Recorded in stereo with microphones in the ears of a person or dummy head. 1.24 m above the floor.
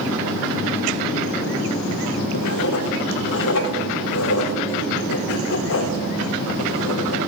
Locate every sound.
2.3 s writing: 75° left (ahead or behind), 4 m